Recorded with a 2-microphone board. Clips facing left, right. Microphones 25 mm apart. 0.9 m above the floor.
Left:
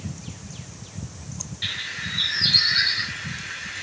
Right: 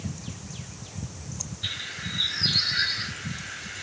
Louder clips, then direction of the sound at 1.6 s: Left 4 dB; 80° left.